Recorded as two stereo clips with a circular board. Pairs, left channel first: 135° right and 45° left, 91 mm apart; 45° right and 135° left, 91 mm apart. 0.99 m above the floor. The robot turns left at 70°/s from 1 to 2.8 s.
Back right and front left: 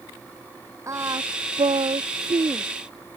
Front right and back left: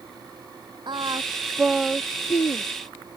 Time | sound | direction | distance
0.9 | singing | 100° left | ?